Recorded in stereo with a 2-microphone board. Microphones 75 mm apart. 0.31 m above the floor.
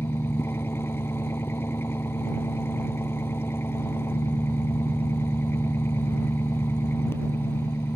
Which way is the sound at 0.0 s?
30° left (ahead or behind).